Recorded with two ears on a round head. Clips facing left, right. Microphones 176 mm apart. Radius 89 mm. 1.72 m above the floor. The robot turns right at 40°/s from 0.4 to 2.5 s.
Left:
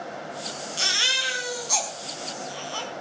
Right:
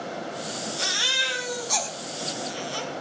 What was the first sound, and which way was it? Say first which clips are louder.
A baby crying: right 2 dB; 40° left (ahead or behind).